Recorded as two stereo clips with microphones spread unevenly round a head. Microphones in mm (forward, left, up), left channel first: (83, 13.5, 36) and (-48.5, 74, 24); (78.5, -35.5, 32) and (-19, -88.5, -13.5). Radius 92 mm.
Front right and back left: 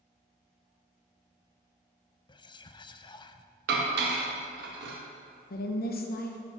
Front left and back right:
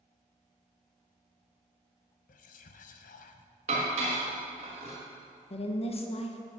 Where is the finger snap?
I don't hear a finger snap.